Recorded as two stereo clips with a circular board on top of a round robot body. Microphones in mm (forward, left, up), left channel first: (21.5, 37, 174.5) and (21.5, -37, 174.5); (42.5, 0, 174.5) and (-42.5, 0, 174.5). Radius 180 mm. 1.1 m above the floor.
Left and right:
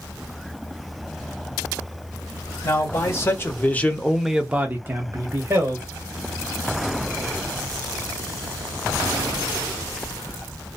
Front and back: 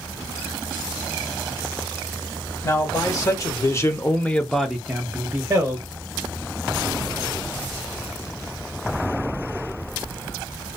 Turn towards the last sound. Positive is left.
turn(degrees=-120)